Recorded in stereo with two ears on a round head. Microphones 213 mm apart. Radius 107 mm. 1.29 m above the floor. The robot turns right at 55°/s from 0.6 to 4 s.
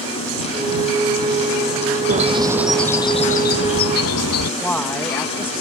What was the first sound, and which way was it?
A bird, 35° right.